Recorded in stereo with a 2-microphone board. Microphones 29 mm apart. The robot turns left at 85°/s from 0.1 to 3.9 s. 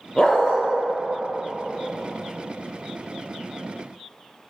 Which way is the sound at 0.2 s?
160° left.